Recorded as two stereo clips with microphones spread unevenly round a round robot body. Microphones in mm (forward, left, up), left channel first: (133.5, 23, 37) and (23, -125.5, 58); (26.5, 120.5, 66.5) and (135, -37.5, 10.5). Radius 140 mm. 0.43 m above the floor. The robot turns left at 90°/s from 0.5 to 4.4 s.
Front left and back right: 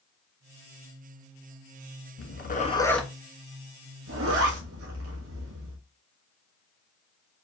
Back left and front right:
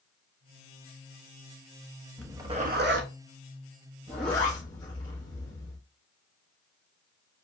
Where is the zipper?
40° left, 1.3 m; by 5.8 s 160° right, 1.3 m.